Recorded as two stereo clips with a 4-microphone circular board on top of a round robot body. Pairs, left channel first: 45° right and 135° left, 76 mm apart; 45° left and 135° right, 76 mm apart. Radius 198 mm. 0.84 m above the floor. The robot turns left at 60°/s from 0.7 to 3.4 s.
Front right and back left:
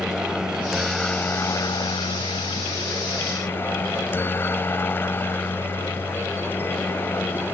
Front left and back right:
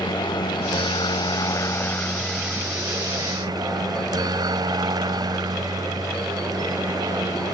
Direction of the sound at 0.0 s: 55° left.